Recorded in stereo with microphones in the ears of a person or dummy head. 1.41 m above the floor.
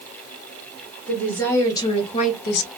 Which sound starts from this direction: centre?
A woman speaking, at 1.1 s.